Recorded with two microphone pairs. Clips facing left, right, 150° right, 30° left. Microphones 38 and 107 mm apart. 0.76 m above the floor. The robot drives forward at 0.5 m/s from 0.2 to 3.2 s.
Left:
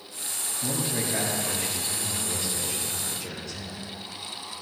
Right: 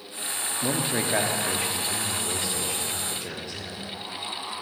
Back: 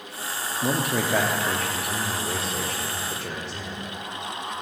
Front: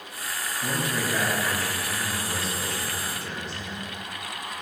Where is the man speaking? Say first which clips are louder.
Right 3 dB, back 4 dB; 120° right, 1.0 m; by 3.9 s 155° right, 2.0 m.